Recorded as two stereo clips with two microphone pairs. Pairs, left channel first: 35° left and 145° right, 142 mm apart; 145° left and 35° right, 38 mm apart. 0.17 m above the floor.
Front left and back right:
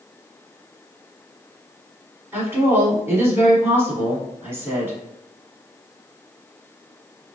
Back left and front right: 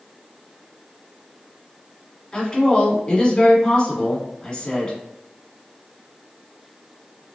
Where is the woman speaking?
155° left, 1.5 m.